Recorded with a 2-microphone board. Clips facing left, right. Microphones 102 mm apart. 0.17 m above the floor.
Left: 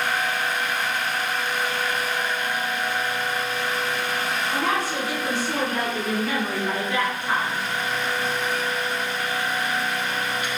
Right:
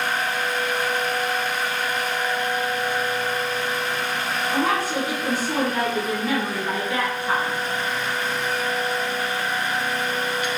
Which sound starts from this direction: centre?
A woman speaking, at 4.5 s.